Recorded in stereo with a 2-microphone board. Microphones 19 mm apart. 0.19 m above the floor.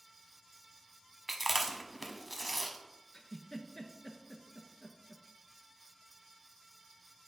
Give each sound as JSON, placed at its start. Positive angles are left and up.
{"t": 1.3, "sound": "chewing", "side_deg": -5, "distance_m": 0.7}
{"t": 3.1, "sound": "a giggle", "side_deg": 35, "distance_m": 0.7}